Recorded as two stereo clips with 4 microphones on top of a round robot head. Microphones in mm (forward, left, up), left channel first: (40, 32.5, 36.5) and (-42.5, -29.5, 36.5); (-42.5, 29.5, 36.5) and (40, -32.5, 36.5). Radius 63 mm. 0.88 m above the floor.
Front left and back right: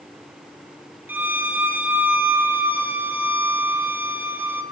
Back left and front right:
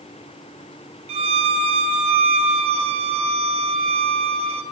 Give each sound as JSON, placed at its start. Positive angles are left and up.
{"t": 1.1, "sound": "a violin", "azimuth_deg": -70, "distance_m": 2.5}